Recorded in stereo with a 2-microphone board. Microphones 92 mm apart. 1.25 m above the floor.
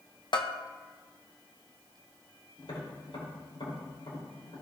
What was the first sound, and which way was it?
A bell, 60° left (ahead or behind).